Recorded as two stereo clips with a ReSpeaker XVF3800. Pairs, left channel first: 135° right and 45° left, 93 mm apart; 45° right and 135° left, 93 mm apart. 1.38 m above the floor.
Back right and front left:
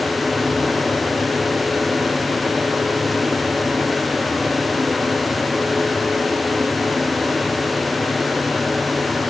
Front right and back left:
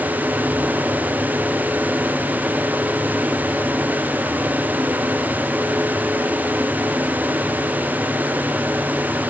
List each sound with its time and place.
Only background noise.